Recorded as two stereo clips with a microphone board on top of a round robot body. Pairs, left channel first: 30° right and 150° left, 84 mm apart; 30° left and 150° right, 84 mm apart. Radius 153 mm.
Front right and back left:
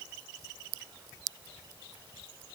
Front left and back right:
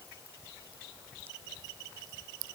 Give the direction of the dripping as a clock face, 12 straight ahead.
No dripping in this recording.